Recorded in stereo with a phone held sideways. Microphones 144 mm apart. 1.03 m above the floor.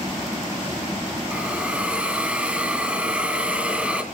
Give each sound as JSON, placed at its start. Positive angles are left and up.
{"t": 1.3, "sound": "a hiss", "side_deg": -10, "distance_m": 1.5}